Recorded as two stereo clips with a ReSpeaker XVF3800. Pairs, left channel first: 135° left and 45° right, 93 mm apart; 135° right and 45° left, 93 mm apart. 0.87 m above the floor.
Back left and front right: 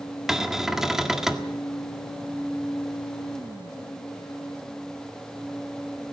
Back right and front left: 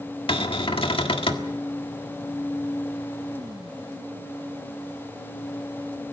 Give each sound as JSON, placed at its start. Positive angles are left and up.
{"t": 0.3, "sound": "a cupboard door", "azimuth_deg": -130, "distance_m": 1.6}